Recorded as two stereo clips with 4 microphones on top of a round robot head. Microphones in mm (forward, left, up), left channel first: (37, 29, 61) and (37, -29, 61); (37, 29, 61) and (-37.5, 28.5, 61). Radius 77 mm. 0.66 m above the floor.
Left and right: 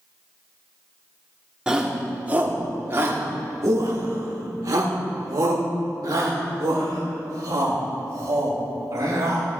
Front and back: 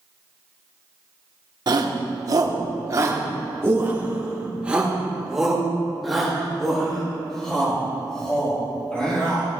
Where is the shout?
165° right, 1.8 m; by 9.5 s 75° right, 4.5 m.